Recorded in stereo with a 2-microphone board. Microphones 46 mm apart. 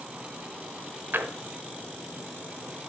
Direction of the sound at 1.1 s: 45° right (ahead or behind).